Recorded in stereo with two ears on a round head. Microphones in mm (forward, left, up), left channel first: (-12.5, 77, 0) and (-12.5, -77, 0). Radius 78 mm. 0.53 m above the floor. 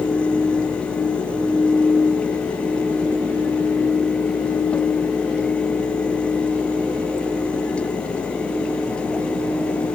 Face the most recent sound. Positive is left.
No sound to turn to.